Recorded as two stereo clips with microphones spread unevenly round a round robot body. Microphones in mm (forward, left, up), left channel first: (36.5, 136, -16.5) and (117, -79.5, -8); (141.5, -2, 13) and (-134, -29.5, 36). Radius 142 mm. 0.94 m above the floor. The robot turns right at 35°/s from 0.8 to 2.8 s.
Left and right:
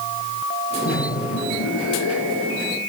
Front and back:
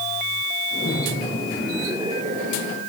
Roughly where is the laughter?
Left.